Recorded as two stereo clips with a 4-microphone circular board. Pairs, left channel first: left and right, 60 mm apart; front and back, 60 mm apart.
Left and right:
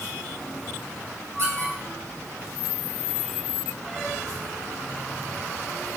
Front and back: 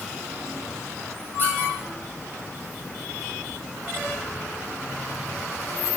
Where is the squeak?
50° right, 2 m.